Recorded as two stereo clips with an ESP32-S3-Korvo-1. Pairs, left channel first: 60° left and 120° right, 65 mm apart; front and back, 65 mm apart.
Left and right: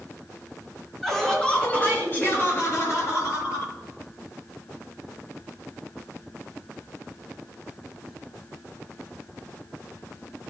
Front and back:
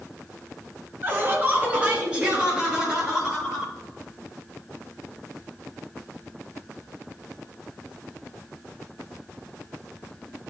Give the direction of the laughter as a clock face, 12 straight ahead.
7 o'clock.